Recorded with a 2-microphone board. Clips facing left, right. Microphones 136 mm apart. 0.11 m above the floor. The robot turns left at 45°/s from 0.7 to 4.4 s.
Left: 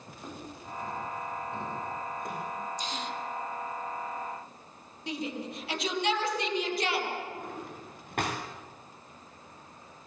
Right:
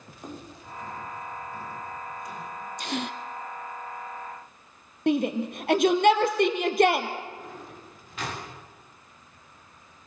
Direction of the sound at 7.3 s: 60° left (ahead or behind).